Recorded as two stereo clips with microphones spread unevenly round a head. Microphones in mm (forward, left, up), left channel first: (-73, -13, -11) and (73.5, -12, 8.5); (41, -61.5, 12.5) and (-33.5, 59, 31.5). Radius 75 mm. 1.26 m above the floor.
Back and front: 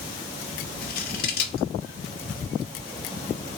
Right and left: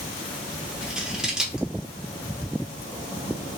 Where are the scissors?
155° right, 1.2 m.